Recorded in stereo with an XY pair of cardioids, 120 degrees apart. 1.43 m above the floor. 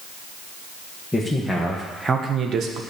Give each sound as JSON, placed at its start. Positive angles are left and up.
{"t": 1.1, "sound": "a man speaking", "azimuth_deg": 10, "distance_m": 1.7}